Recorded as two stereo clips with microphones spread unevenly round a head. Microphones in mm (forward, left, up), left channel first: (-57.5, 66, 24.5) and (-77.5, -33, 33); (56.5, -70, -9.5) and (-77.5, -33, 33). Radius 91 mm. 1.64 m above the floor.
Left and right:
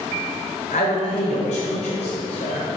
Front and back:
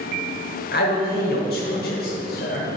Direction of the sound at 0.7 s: 30° left.